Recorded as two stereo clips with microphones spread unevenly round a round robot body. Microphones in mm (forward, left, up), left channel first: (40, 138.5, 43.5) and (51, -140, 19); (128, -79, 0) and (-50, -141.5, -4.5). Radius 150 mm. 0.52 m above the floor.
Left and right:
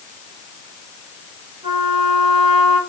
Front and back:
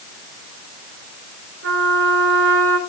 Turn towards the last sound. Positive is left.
turn(degrees=-165)